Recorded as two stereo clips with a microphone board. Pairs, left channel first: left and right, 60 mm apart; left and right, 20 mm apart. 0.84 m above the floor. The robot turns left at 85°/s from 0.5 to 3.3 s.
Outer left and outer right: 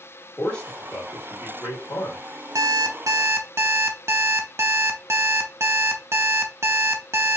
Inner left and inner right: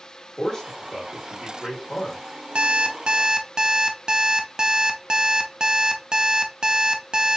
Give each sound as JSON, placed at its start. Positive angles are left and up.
{"t": 0.4, "sound": "a man speaking", "side_deg": 5, "distance_m": 1.6}
{"t": 2.5, "sound": "an alarm clock", "azimuth_deg": -70, "distance_m": 0.5}